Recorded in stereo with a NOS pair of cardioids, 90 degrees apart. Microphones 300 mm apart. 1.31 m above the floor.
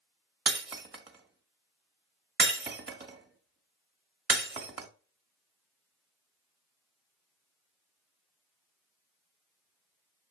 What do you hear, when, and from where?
0.5 s breaking glass: 35° right, 1.5 m